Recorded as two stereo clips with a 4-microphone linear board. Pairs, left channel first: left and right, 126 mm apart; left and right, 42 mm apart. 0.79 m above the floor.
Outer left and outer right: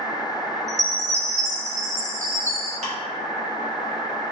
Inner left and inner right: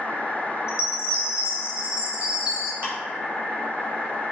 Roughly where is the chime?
Right.